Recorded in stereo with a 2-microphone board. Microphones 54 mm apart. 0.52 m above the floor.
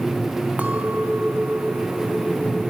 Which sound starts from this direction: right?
A clink, at 0.6 s.